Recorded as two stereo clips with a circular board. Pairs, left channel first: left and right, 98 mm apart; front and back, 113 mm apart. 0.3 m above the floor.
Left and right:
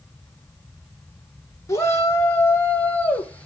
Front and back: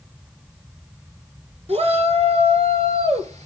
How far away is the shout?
About 4.5 m.